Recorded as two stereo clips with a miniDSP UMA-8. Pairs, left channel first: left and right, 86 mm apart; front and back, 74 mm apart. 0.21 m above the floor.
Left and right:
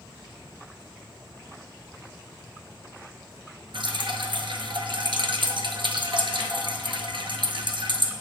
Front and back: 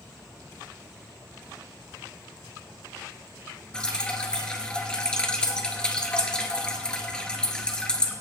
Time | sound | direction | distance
3.7 | dripping | 80° right | 1.2 m